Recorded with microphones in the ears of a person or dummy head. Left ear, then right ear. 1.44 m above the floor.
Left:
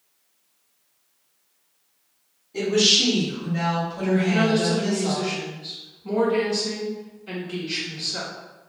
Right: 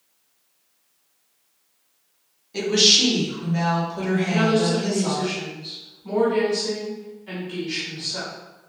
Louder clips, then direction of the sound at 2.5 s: Right 2 dB; 40° right (ahead or behind).